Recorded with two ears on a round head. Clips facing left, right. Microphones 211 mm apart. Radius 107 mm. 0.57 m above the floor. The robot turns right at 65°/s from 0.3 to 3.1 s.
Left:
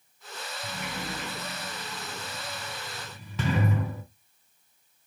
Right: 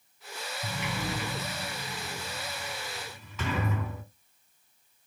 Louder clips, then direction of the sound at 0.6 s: Right 3 dB; 50° right (ahead or behind).